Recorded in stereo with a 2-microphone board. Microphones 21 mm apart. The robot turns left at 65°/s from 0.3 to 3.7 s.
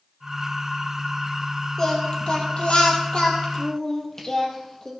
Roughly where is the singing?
Behind left.